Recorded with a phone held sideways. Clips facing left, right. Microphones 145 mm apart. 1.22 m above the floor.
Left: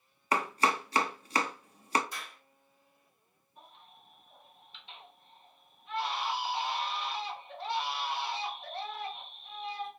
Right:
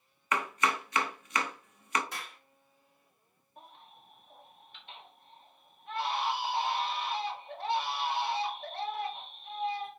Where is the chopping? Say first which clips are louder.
Left 2 dB; 35° left (ahead or behind), 0.5 m.